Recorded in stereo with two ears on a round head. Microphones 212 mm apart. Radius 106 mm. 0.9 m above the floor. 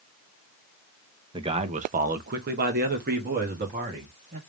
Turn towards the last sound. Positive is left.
turn(degrees=-40)  # may be behind; listen again after turning